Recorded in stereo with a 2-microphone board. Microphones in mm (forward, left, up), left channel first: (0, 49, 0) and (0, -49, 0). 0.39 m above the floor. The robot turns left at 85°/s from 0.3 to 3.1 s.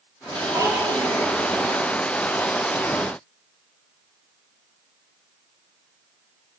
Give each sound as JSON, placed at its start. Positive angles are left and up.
{"t": 0.5, "sound": "a child speaking", "azimuth_deg": -25, "distance_m": 9.5}